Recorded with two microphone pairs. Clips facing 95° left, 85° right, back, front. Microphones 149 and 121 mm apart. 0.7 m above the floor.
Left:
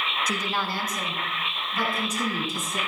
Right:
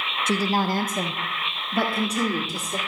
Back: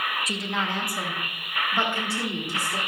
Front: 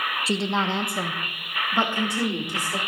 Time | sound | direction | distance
0.3 | a woman speaking | 45° right | 0.5 m